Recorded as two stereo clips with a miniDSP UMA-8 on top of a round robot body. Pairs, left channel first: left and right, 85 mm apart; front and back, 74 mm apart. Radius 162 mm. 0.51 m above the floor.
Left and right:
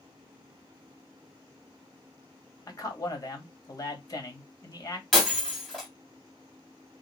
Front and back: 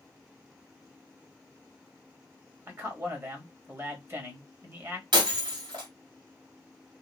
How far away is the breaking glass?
About 2.0 m.